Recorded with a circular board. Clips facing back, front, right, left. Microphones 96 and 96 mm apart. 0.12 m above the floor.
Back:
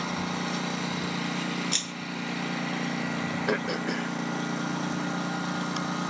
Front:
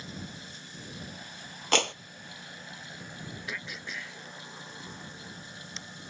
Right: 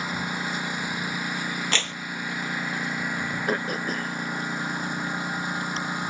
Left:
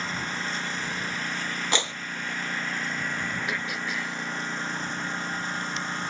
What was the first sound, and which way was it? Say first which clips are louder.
A lawn mower: back 13 dB, right 2 dB; 170° right.